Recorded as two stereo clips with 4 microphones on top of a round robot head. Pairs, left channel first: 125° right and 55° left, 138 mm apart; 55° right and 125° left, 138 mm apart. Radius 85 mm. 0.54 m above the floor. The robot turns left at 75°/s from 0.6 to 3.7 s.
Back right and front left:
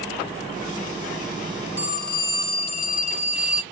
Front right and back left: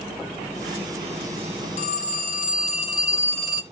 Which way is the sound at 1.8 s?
20° right.